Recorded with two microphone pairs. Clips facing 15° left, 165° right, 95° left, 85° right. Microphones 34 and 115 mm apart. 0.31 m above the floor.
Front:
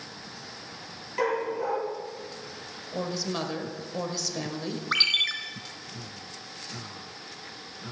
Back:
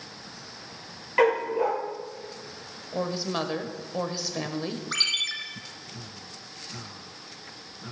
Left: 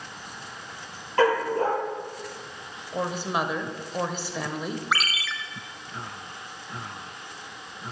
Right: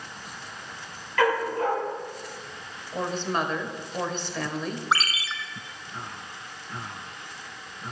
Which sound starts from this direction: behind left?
A dog barking, at 1.2 s.